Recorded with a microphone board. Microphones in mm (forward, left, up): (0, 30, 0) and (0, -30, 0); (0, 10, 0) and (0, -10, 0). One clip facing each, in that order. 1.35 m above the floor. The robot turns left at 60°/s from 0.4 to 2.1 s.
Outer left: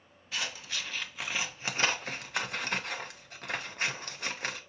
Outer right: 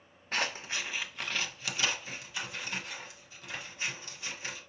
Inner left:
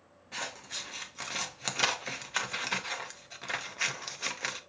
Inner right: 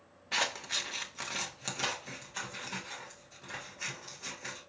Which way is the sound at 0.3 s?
45° right (ahead or behind).